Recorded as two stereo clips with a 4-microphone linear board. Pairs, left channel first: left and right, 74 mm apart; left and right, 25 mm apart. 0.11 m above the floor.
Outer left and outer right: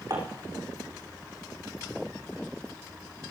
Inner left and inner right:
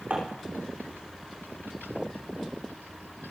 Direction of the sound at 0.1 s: 70° right (ahead or behind).